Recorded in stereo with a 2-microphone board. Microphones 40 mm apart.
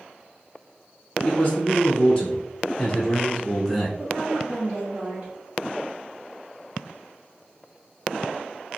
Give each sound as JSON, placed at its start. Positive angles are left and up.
{"t": 1.2, "sound": "a man speaking", "side_deg": 25, "distance_m": 1.4}
{"t": 4.0, "sound": "a woman speaking", "side_deg": -45, "distance_m": 1.5}